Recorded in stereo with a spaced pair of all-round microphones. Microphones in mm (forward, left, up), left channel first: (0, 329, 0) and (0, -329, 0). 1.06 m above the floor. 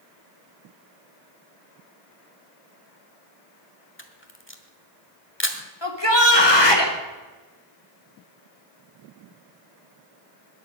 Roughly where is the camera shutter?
Centre.